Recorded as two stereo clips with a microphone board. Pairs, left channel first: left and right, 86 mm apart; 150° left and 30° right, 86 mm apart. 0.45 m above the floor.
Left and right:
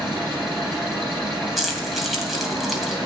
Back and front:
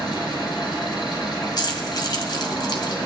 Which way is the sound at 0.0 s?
115° right.